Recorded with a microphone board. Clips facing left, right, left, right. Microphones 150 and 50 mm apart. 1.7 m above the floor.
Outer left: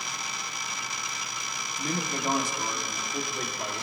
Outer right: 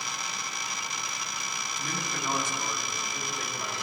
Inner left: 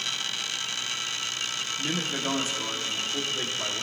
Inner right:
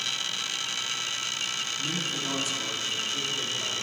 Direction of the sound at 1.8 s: 35° left (ahead or behind).